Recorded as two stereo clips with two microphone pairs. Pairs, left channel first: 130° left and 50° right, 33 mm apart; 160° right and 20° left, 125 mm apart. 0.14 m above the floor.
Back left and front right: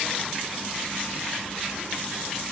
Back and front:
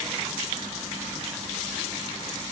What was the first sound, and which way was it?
Only background noise.